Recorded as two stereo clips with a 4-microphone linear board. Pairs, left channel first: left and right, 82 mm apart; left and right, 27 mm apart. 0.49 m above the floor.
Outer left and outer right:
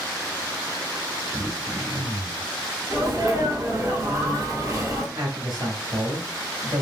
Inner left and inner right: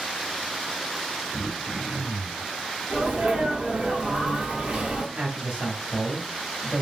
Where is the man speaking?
60° right (ahead or behind), 2 m.